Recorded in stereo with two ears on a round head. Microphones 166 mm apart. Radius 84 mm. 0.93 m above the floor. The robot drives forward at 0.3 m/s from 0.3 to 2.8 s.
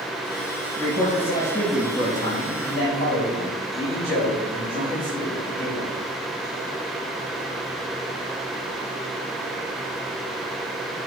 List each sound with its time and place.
0.8 s a man speaking: 40° left (ahead or behind), 5 m; by 5.9 s 35° left (ahead or behind), 5.5 m